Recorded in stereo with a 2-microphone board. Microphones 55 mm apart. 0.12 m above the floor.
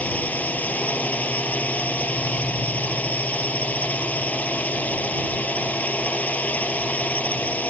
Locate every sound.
0.0 s a drone: 25° left (ahead or behind)